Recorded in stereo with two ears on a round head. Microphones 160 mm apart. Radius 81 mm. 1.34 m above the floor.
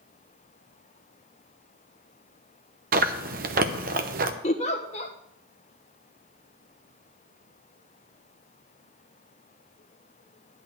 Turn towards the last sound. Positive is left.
turn(degrees=35)  # may be behind; listen again after turning